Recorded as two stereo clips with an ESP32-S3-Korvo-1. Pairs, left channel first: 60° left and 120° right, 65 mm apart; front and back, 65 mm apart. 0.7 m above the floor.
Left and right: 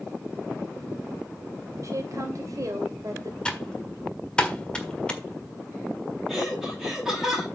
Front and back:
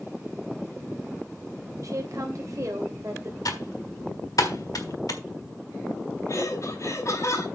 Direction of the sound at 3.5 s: 15° right.